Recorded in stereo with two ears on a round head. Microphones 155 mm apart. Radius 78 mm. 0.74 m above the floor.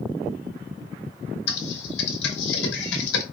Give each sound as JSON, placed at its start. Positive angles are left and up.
{"t": 1.5, "sound": "typing on a keyboard", "side_deg": 75, "distance_m": 0.8}